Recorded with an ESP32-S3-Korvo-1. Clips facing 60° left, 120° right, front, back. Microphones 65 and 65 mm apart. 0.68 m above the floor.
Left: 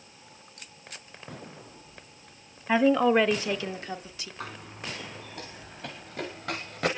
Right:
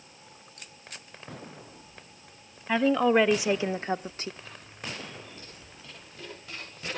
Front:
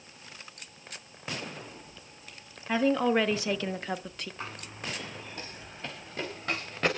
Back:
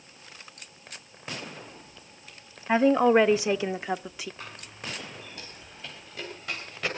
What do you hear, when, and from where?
2.7 s a woman speaking: 125° left, 0.8 m; by 4.3 s 95° right, 0.8 m
4.4 s running footsteps: 60° left, 4 m; by 6.9 s 45° left, 5.5 m